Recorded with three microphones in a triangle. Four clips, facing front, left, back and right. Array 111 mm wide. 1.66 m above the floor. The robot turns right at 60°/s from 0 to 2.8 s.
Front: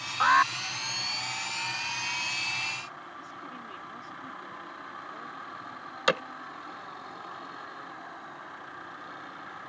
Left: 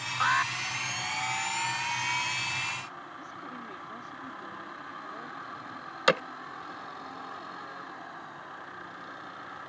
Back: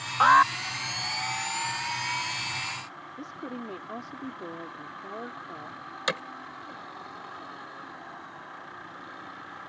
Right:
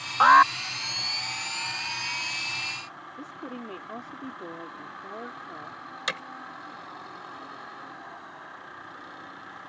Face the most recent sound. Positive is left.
turn(degrees=65)